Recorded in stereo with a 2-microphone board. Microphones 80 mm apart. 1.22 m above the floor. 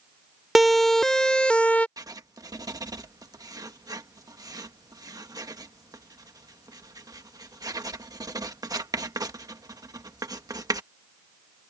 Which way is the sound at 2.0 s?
50° right (ahead or behind).